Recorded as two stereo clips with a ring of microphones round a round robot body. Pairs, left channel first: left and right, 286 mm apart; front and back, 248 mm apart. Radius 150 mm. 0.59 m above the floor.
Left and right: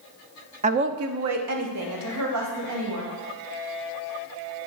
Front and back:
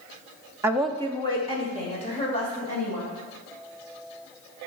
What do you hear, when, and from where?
0.6 s a woman speaking: 120° right, 0.6 m; by 3.2 s 65° right, 4 m